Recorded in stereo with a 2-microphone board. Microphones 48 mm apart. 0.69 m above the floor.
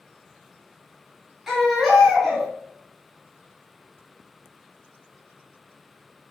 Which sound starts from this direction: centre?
A baby crying, at 1.5 s.